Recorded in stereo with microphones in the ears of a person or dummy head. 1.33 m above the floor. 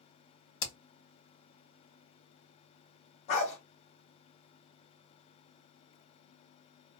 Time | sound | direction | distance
0.6 | hammering | 65° left (ahead or behind) | 1.8 m
3.3 | a dog barking | 45° left (ahead or behind) | 1.6 m